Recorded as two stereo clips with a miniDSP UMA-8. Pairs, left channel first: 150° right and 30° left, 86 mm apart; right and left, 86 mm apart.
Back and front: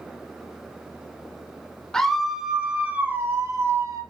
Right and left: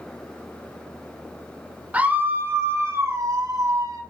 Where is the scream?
140° left, 1.2 m; by 4.0 s 65° left, 1.7 m.